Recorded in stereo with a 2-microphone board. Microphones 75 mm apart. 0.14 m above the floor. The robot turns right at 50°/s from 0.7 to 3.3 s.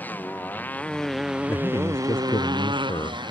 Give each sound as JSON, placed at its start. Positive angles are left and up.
{"t": 0.0, "sound": "a motorcycle", "azimuth_deg": 160}
{"t": 1.5, "sound": "a man speaking", "azimuth_deg": 35}